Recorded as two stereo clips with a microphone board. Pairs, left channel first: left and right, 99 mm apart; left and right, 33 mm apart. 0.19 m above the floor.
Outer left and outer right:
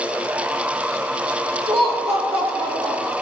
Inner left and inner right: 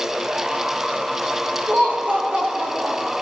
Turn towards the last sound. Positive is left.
turn(degrees=-70)  # may be behind; listen again after turning